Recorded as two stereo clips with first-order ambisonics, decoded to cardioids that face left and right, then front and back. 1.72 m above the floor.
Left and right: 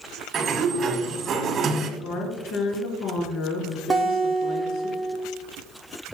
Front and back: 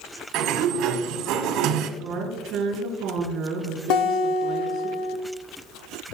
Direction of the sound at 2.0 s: 125° left.